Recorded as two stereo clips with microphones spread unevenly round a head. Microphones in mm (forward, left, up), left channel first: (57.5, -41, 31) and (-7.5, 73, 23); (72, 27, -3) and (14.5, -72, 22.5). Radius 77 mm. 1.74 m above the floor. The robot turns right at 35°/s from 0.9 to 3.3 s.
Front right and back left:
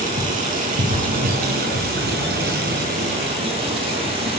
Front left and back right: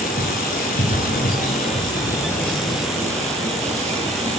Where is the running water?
90° left, 6 m; by 4.4 s 175° left, 6 m.